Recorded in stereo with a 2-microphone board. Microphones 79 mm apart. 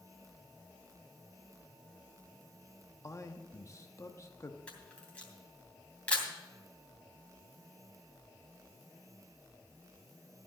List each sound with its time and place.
3.0 s a man speaking: 40° left (ahead or behind), 1.0 m
4.7 s a camera shutter: 15° left (ahead or behind), 2.5 m